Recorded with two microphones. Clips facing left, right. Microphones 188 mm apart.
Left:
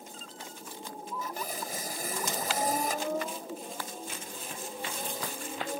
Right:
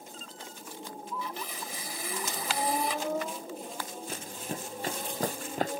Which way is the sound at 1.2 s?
40° left (ahead or behind).